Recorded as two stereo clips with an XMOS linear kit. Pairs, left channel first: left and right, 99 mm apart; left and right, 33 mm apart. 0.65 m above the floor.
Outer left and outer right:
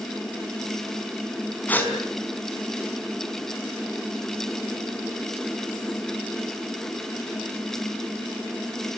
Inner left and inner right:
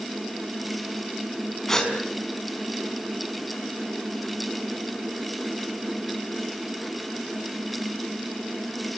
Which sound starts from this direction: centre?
A gasp, at 1.7 s.